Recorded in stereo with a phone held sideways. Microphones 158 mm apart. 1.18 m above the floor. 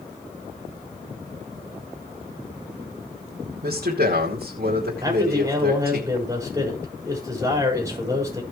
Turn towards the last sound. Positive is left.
turn(degrees=-20)  # may be behind; listen again after turning